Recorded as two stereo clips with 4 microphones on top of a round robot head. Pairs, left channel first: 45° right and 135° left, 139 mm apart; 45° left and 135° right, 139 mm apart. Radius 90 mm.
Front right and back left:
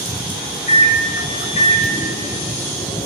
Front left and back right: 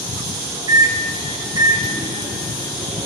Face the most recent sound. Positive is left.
turn(degrees=-80)